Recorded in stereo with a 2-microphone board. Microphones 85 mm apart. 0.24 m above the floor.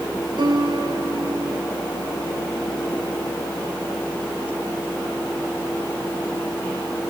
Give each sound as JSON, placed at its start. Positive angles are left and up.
{"t": 0.4, "sound": "a piano", "side_deg": -65, "distance_m": 7.5}